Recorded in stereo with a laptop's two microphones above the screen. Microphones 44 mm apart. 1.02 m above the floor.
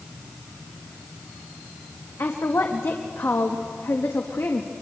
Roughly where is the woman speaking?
Left.